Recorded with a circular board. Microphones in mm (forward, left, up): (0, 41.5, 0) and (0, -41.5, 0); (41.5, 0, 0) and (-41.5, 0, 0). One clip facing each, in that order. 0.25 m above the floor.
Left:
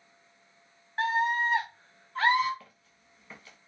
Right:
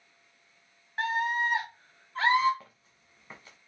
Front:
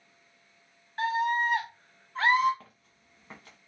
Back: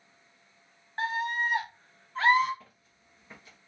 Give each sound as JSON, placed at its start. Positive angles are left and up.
{"t": 1.0, "sound": "a scream", "azimuth_deg": -170, "distance_m": 1.7}
{"t": 2.6, "sound": "footsteps", "azimuth_deg": -30, "distance_m": 1.3}